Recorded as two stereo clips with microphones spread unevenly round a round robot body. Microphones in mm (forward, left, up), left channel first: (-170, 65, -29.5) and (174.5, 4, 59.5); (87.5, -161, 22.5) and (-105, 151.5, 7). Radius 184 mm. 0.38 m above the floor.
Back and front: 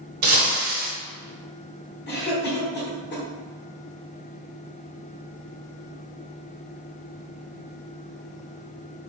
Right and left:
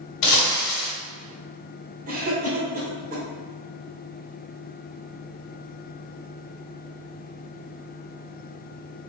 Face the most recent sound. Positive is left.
turn(degrees=175)